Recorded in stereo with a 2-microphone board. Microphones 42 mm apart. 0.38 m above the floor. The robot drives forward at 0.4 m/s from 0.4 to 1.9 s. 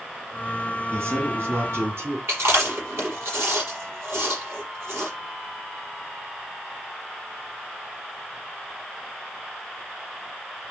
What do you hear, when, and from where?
0.9 s a man speaking: 75° right (ahead or behind), 3 m
2.3 s chewing: 80° right, 6 m